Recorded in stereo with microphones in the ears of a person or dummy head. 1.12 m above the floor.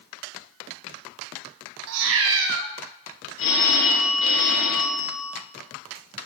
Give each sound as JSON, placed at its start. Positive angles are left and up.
{"t": 1.9, "sound": "a cat meowing", "side_deg": -65, "distance_m": 0.7}
{"t": 3.4, "sound": "a phone ringing", "side_deg": 75, "distance_m": 2.5}